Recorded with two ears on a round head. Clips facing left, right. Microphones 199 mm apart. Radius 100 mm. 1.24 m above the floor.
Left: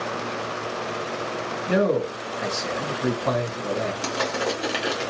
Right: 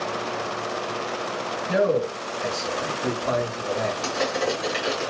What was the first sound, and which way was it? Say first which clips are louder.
A man speaking: even; 70° left (ahead or behind).